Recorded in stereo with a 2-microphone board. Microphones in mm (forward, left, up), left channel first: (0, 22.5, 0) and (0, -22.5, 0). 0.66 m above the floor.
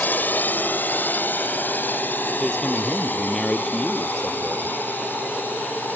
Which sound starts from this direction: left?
A drone, at 0.0 s.